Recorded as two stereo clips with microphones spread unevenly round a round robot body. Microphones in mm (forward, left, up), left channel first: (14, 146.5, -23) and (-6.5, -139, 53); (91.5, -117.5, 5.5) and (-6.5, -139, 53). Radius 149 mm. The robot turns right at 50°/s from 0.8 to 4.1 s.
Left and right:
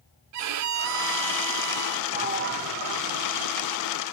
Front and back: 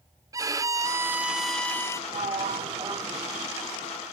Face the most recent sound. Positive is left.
turn(degrees=-65)